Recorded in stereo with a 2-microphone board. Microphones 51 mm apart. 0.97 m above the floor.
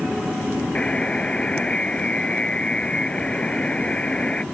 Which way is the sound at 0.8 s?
20° left (ahead or behind).